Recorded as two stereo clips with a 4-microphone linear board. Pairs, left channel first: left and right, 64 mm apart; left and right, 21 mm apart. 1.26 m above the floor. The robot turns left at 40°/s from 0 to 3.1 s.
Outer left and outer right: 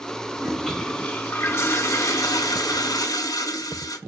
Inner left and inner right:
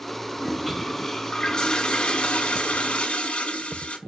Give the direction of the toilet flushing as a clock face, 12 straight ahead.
6 o'clock.